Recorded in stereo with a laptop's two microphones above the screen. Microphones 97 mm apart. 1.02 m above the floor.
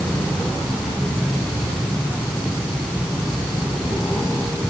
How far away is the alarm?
No alarm in this recording.